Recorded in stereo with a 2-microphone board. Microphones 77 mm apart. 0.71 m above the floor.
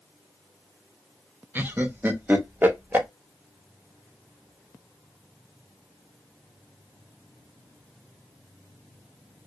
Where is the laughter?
25° right (ahead or behind), 0.5 m.